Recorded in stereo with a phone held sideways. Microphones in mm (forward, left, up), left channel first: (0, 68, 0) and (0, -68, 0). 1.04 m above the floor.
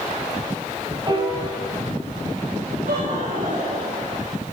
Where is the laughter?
80° right, 4.5 m.